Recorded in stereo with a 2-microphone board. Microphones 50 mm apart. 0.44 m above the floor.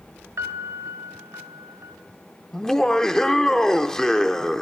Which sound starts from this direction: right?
A piano, at 0.4 s.